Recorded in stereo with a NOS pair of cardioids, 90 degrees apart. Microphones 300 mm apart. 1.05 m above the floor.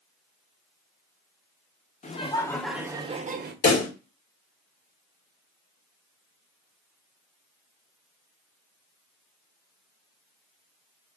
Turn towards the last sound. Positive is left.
turn(degrees=60)